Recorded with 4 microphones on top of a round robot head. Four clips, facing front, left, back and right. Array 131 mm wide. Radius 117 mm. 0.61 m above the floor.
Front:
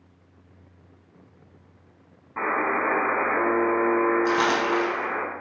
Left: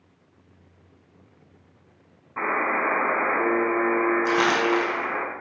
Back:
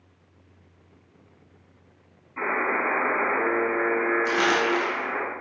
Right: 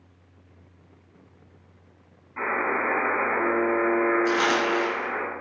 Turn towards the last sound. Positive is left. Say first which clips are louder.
# left 2 dB, front 1 dB
turn(degrees=40)